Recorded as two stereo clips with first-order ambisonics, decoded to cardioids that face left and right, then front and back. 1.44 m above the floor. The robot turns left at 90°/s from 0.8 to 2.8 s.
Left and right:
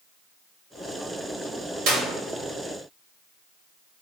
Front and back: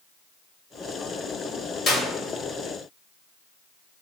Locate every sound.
1.9 s a clap: 60° right, 2 m; by 2.0 s 80° right, 2 m